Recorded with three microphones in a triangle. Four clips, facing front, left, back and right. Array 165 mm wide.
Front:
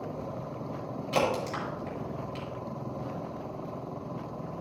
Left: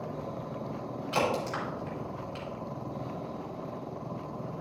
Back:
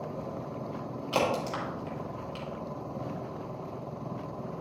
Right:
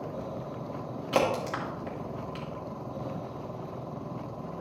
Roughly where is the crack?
Right.